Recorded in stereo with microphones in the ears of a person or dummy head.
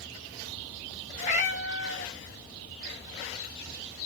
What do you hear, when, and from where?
1.2 s a cat meowing: 20° left (ahead or behind), 1.1 m